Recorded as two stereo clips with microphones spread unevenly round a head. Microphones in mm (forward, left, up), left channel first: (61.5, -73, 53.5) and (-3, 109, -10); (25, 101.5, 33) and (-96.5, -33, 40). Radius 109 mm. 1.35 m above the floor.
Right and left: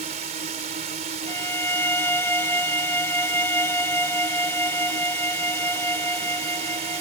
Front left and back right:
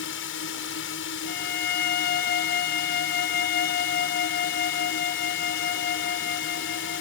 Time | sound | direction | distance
0.0 | a drone | 55° left | ?
1.3 | a violin | 15° left | ?